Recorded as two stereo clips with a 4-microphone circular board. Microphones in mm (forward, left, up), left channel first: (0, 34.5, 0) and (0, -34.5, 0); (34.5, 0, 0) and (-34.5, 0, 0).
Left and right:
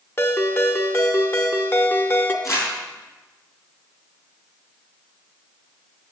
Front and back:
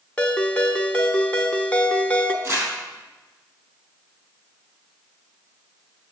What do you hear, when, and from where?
0.2 s a ringtone: 60° left, 0.8 m
2.4 s crumpling: 130° left, 4.5 m